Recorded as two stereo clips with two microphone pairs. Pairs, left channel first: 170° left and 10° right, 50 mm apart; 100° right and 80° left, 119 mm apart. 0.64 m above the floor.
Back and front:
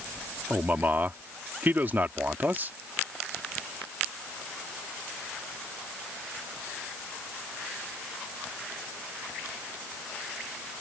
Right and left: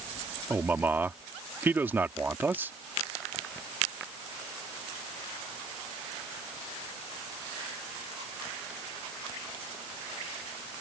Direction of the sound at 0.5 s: 15° left.